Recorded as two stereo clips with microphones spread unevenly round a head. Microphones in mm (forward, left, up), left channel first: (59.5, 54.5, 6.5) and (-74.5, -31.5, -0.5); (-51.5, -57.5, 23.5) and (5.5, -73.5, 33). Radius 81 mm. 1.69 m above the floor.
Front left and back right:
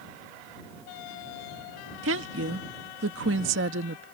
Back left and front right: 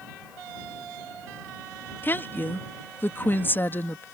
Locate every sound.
2.0 s a woman speaking: 140° right